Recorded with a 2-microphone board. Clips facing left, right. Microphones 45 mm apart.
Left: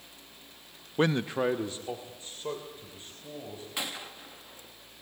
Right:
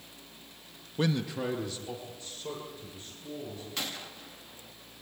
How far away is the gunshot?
About 1.2 m.